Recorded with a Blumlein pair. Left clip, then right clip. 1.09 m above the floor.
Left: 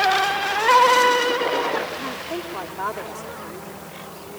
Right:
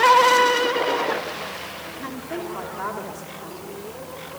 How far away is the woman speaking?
About 2.5 m.